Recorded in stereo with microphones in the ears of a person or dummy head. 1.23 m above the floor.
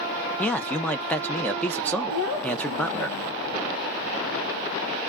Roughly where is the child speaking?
Left.